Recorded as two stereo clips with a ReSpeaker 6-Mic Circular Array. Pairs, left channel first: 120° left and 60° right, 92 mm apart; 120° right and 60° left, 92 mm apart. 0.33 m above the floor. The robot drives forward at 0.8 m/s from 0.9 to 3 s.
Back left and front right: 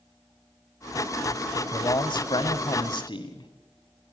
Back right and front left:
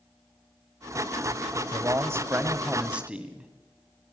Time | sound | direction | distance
1.7 | a man speaking | 100° left | 1.4 m